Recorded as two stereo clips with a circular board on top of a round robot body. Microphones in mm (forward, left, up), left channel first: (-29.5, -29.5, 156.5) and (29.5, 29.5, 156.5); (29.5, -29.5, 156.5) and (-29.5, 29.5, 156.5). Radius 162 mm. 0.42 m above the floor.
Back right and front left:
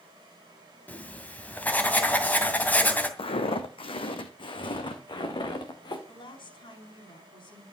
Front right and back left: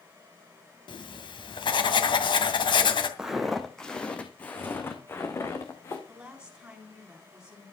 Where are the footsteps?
140° right, 1.5 m; by 6.0 s 100° right, 3 m.